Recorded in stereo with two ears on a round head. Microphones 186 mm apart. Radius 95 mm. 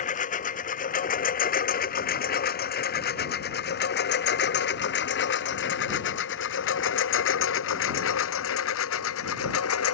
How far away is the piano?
I don't hear a piano.